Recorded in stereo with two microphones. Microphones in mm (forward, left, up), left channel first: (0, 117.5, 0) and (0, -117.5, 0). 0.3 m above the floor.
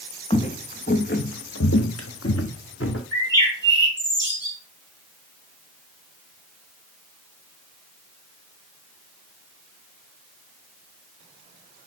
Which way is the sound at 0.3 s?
25° left (ahead or behind).